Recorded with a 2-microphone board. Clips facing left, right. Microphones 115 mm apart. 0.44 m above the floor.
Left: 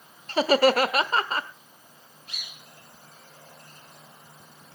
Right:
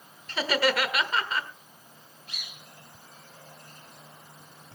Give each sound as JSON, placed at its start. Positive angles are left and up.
{"t": 0.3, "sound": "laughter", "side_deg": 40, "distance_m": 1.2}